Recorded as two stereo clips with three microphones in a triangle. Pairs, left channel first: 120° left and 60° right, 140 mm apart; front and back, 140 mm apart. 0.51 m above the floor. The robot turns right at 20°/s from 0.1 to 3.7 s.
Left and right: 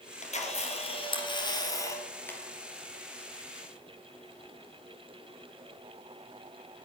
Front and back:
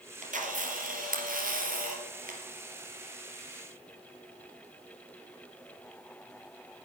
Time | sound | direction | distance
0.2 | a camera shutter | 155° left | 3 m